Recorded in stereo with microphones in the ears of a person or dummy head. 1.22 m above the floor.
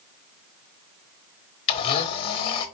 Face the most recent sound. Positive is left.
turn(degrees=30)  # may be behind; listen again after turning